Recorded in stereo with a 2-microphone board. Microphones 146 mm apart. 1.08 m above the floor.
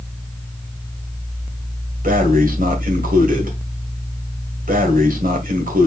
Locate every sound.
2.0 s breathing: 75° right (ahead or behind), 2.0 m